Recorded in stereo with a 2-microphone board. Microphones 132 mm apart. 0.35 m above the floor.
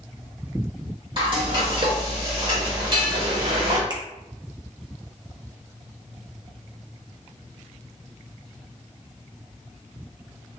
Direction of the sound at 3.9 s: 30° right (ahead or behind).